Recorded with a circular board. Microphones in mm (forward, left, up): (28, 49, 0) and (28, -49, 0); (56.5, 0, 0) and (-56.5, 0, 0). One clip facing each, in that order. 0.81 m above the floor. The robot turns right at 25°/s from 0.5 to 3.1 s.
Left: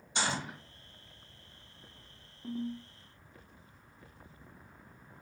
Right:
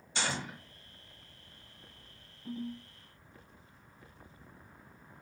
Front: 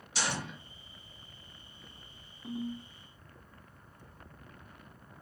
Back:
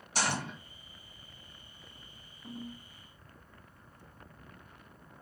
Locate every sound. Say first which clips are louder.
0.1 s a gunshot: left 2 dB, back 2 dB; 155° left, 1.2 m
2.4 s a ringtone: left 3 dB, front 6 dB; 75° left, 1.5 m; by 2.9 s 85° left, 1.5 m